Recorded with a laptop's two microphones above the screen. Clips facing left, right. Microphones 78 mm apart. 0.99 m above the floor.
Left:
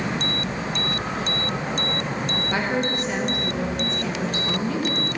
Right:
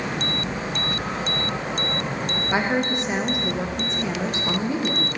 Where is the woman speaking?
20° right (ahead or behind), 0.6 m.